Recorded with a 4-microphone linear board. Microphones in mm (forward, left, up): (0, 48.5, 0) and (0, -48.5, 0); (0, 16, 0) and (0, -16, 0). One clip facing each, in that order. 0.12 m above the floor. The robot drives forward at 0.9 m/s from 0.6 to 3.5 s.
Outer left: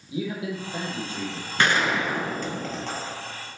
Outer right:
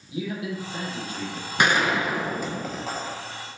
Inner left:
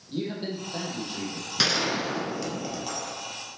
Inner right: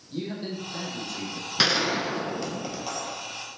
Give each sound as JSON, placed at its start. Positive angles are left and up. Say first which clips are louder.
{"t": 0.1, "sound": "a man speaking", "louder": "outer left 1 dB, inner left 1 dB", "side_deg": 30, "distance_m": 3.5}
{"t": 1.6, "sound": "a gunshot", "louder": "outer right 1 dB, inner right 2 dB", "side_deg": -15, "distance_m": 0.9}